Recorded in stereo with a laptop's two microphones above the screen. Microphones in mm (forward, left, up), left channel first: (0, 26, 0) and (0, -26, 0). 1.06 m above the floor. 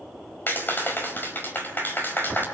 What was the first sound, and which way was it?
A clap, 40° left (ahead or behind).